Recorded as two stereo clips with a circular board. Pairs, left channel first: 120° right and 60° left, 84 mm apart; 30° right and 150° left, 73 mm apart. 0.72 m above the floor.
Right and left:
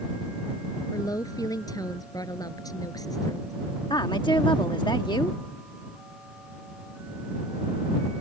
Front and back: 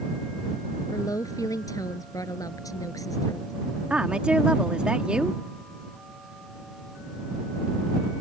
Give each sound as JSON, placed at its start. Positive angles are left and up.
{"t": 0.9, "sound": "a woman speaking", "azimuth_deg": -70}
{"t": 3.9, "sound": "a woman speaking", "azimuth_deg": -135}